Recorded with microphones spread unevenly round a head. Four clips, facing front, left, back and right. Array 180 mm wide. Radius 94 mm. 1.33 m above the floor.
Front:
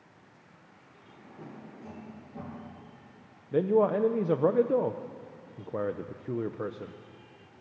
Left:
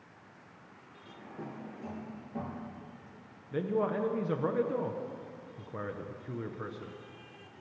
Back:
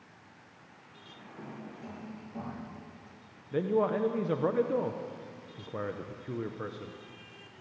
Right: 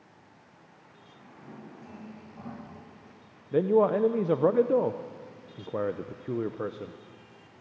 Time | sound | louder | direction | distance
1.1 | a drawer | left 5 dB, back 1 dB | 105° left | 8.5 m
3.5 | a man speaking | right 9 dB, front 4 dB | 60° right | 0.7 m